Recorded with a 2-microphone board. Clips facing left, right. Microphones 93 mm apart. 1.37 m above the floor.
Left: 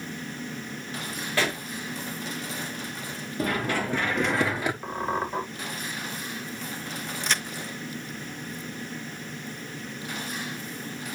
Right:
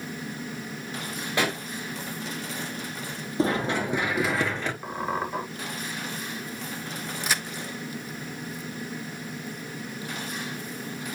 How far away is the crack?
About 0.8 m.